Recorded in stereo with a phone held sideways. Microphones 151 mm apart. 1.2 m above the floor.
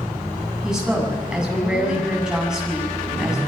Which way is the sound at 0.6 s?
5° right (ahead or behind).